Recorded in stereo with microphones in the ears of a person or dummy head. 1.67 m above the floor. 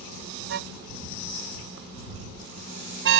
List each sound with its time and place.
0.5 s a car horn: 75° right (ahead or behind)